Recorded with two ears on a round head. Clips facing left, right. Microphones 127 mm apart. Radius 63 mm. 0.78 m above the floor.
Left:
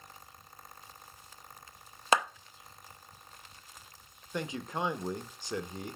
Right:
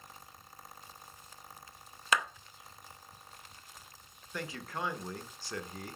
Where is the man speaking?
20° left (ahead or behind), 0.6 m.